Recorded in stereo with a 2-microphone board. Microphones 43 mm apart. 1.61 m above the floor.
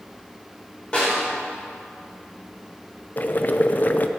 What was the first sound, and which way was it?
A snare drum, 25° left (ahead or behind).